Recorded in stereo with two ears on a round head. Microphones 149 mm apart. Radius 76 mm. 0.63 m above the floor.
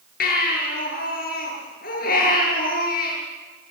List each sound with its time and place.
0.2 s a baby crying: 60° left (ahead or behind), 8.5 m